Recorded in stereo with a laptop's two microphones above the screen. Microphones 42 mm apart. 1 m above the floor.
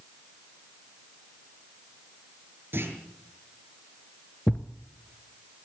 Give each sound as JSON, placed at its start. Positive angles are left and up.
{"t": 2.7, "sound": "a clunk", "side_deg": -60, "distance_m": 7.0}
{"t": 4.5, "sound": "a thud", "side_deg": 20, "distance_m": 1.3}